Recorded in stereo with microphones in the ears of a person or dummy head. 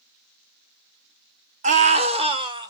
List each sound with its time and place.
1.6 s a scream: 35° right (ahead or behind), 0.8 m; by 2.7 s 15° right (ahead or behind), 1.1 m